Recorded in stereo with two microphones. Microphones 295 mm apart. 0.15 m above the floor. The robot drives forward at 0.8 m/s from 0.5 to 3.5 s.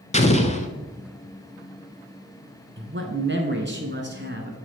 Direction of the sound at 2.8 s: 40° right (ahead or behind).